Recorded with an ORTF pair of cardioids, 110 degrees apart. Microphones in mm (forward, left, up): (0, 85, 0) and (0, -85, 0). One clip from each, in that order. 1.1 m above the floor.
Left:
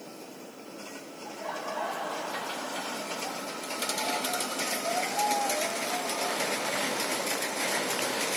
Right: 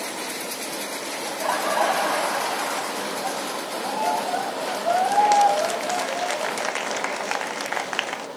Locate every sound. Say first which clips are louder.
1.2 s laughter: right 11 dB; 60° right, 0.7 m